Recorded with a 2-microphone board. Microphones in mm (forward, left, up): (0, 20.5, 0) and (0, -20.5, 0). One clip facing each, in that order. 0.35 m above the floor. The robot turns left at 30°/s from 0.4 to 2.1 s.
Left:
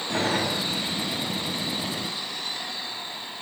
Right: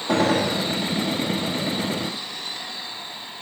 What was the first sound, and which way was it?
A gunshot, 85° right.